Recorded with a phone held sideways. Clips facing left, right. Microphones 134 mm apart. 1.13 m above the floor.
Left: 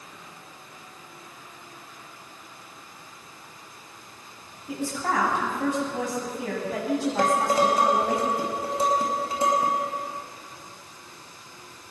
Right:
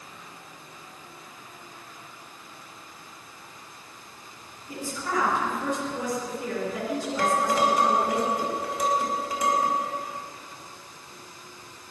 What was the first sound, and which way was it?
A woman speaking, 80° left.